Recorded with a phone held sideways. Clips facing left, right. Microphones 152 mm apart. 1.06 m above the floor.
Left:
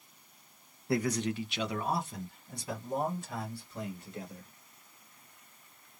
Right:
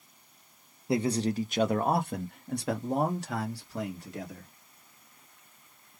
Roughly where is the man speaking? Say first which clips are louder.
Right 3 dB; right.